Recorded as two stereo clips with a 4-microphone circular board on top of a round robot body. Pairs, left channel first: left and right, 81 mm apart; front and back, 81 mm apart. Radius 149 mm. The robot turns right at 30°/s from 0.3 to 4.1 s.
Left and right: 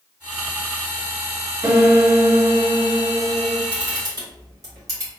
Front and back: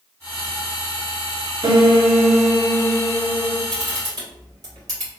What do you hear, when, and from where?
1.6 s a piano: 155° right, 0.9 m; by 3.6 s 100° right, 0.9 m
3.7 s a camera shutter: 150° right, 1.9 m; by 5.1 s 135° right, 1.9 m